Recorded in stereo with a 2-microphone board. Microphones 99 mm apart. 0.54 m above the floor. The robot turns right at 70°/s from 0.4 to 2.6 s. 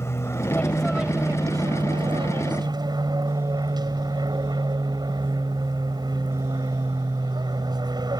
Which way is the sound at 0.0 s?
145° left.